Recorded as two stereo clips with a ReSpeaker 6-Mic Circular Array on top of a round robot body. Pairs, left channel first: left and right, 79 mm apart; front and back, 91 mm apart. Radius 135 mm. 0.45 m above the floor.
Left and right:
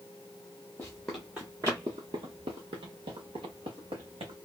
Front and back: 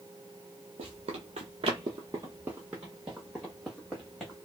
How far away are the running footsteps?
About 0.7 m.